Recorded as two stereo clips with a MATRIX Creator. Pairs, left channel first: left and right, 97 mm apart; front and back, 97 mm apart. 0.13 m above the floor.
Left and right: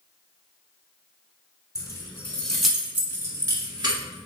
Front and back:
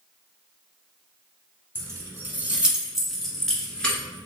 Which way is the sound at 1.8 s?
130° left.